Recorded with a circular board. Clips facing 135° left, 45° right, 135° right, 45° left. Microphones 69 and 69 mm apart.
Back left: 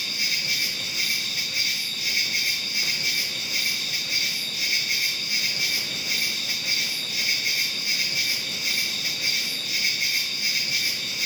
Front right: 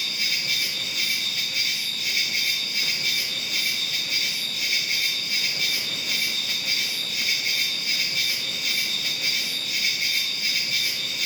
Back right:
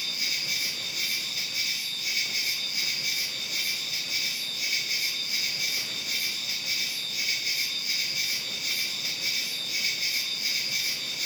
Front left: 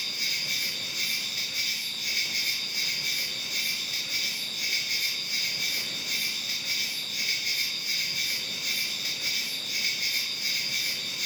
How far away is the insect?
About 0.9 m.